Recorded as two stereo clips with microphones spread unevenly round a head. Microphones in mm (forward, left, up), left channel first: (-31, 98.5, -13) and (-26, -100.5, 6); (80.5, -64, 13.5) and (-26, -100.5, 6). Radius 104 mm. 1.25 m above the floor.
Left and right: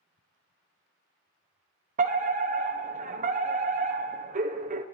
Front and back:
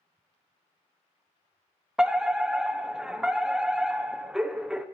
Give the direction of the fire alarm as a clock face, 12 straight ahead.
3 o'clock.